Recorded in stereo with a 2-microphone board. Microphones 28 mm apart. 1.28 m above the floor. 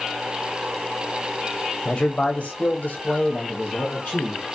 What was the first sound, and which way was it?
A man speaking, 30° left (ahead or behind).